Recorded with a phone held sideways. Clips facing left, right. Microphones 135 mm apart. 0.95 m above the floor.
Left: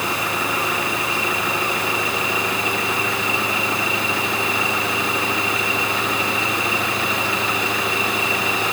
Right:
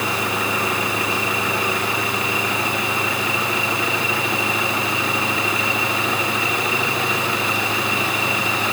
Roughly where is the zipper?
No zipper in this recording.